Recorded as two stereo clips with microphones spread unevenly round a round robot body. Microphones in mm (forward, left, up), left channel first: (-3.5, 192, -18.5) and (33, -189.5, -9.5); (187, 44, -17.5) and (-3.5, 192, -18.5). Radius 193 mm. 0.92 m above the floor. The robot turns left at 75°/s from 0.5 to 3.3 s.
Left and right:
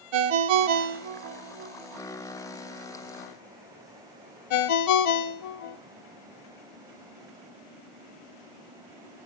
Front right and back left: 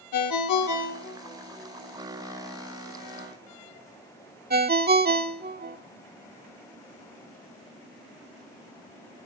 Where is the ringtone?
60° right, 1.6 m; by 5.8 s 90° left, 1.6 m.